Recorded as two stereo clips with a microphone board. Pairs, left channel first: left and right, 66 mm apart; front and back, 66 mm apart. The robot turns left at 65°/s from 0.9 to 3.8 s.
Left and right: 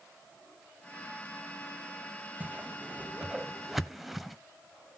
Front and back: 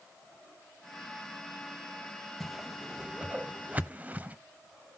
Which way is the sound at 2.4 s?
85° right.